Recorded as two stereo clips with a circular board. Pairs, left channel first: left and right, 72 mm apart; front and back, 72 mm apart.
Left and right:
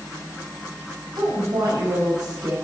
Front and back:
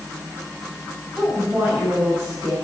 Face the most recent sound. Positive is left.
turn(degrees=-100)